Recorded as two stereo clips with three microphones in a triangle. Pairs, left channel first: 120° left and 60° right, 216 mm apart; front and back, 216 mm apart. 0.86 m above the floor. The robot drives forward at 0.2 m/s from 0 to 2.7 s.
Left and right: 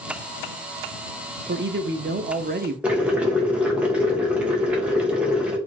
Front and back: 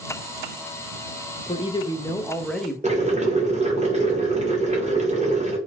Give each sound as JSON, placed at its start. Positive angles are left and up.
{"t": 1.5, "sound": "a man speaking", "azimuth_deg": -55, "distance_m": 0.5}
{"t": 2.8, "sound": "boiling", "azimuth_deg": -140, "distance_m": 0.8}